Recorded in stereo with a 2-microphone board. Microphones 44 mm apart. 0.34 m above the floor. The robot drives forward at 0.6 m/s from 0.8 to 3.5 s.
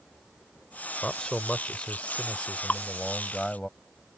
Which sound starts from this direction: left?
Dripping, at 2.7 s.